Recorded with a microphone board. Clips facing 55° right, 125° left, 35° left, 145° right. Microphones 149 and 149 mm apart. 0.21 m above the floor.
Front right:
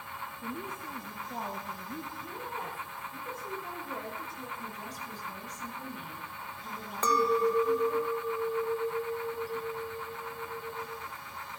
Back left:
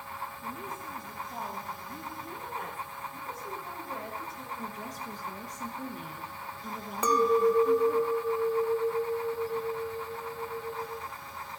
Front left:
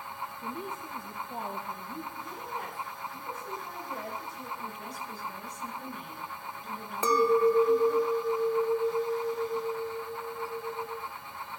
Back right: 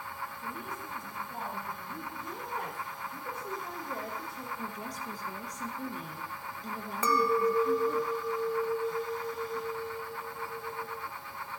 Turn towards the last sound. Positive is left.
turn(degrees=60)